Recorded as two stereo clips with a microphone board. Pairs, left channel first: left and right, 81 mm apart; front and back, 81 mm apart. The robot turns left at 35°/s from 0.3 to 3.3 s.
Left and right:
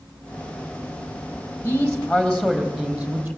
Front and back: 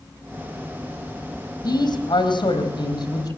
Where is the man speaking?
35° left, 4.5 m; by 3.4 s 20° right, 4.5 m.